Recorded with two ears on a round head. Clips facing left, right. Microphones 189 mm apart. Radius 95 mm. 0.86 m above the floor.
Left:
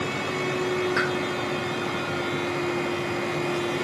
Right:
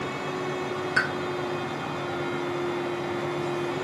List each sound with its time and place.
1.0 s a pop: 25° right (ahead or behind), 3 m